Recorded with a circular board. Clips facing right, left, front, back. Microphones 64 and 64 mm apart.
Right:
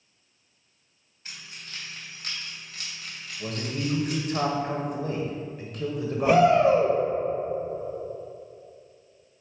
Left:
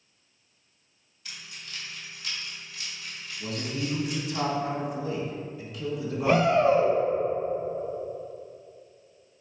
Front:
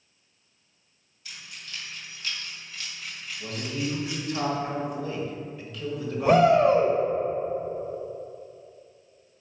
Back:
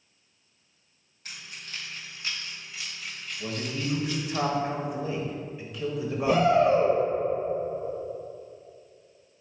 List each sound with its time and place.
1.2 s keys jangling: 145° right, 2 m; by 4.4 s 60° right, 2 m
3.4 s a man speaking: 110° right, 1.5 m
6.2 s a shout: 15° right, 2 m